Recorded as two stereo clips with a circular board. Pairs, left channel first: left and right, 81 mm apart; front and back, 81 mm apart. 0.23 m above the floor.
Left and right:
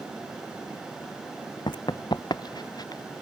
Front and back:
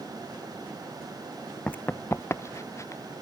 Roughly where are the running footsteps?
Left.